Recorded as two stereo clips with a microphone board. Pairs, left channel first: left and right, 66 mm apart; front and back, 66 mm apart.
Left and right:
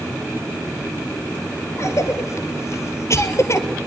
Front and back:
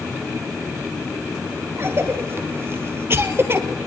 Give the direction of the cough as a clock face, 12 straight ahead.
8 o'clock.